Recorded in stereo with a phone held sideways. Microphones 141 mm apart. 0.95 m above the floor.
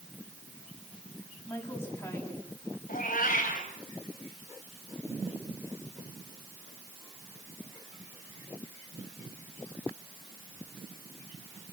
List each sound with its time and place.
1.5 s a woman speaking: 20° left (ahead or behind), 8.5 m
2.9 s a cat meowing: 80° left, 3.5 m